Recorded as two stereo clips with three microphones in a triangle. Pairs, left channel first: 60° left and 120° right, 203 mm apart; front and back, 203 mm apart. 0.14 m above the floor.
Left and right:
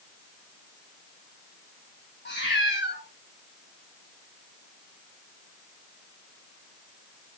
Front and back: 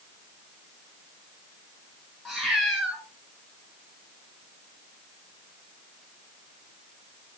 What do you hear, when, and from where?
2.2 s a cat meowing: 90° left, 3 m